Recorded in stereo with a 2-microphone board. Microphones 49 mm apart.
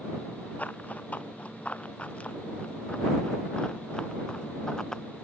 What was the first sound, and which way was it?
Running footsteps, 30° left (ahead or behind).